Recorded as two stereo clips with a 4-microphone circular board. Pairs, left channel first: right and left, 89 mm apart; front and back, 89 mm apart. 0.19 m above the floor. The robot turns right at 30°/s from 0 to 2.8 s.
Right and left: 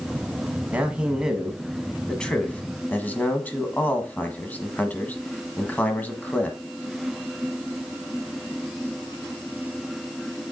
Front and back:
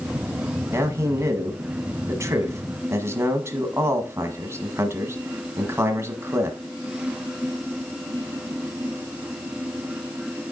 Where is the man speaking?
155° left, 1.4 m; by 6.6 s 145° right, 1.4 m.